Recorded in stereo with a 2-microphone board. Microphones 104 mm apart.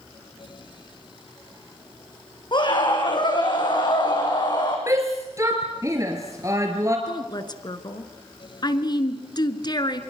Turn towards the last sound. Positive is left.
turn(degrees=45)  # may be behind; listen again after turning